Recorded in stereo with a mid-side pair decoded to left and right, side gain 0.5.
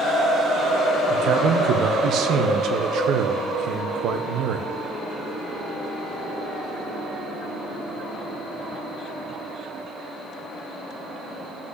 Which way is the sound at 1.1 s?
65° right.